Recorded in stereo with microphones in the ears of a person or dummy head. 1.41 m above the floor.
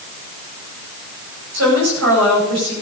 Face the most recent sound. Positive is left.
turn(degrees=-70)  # may be behind; listen again after turning